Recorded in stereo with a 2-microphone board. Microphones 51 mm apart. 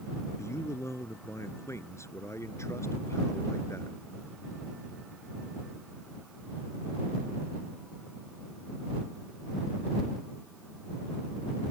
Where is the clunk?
No clunk in this recording.